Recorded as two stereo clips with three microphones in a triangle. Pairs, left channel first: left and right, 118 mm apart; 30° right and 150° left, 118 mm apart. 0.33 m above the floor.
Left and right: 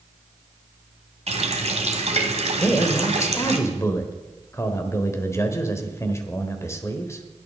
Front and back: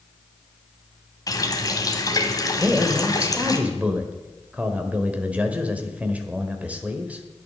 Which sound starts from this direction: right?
A running tap, at 1.3 s.